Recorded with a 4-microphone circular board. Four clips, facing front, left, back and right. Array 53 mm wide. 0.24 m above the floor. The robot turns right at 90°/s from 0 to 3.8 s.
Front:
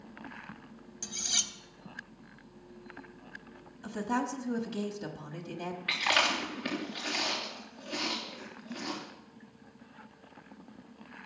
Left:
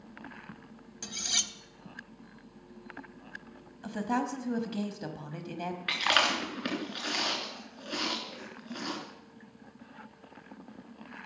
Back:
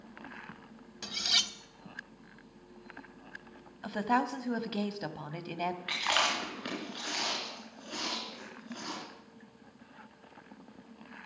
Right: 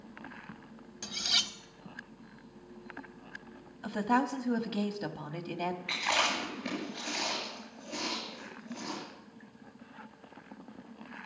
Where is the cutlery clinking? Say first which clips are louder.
Right 3 dB, back 5 dB; 170° right, 0.6 m; by 1.5 s 125° right, 0.6 m.